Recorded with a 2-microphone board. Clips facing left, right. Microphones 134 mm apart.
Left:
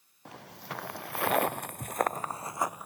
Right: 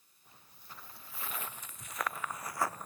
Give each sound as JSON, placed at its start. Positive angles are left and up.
{"t": 0.2, "sound": "footsteps", "side_deg": 80}